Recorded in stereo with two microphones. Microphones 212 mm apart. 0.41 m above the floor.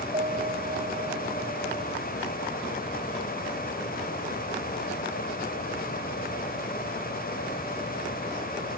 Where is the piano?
30° right (ahead or behind).